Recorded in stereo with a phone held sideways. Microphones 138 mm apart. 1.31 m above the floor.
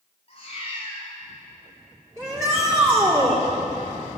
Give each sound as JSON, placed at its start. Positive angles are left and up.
{"t": 0.3, "sound": "a cat meowing", "side_deg": 45, "distance_m": 5.5}
{"t": 2.2, "sound": "a shout", "side_deg": -25, "distance_m": 3.0}